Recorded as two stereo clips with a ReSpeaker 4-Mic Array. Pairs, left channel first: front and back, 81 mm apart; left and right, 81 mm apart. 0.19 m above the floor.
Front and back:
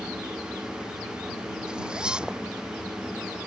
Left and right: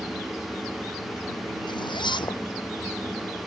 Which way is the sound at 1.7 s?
100° left.